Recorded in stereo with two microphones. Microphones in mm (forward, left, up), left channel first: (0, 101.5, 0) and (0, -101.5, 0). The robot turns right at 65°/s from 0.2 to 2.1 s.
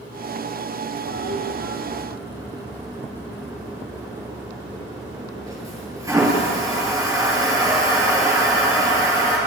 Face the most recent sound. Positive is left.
turn(degrees=-15)  # may be behind; listen again after turning